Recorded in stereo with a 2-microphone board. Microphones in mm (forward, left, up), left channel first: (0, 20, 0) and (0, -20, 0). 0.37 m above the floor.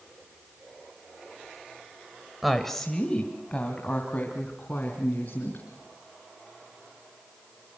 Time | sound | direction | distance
2.4 | a woman speaking | centre (ahead or behind) | 1.4 m